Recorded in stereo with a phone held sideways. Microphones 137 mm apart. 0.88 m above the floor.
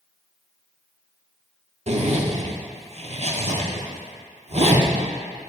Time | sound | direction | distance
1.9 | a zipper | 50° right (ahead or behind) | 0.7 m